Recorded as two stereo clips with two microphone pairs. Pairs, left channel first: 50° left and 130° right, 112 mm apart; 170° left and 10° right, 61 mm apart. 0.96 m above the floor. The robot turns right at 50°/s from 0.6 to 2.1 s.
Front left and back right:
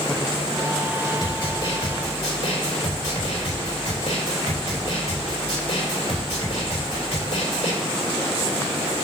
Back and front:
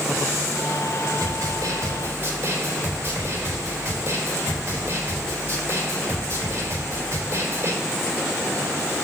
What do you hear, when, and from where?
1.2 s a snare drum: 5° right, 3.5 m; by 7.7 s 40° left, 3.5 m